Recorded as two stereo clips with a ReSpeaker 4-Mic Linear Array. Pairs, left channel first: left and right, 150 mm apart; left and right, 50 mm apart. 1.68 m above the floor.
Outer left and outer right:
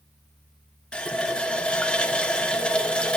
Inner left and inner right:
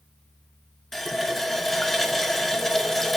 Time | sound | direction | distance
0.9 | a running tap | 5° left (ahead or behind) | 0.7 m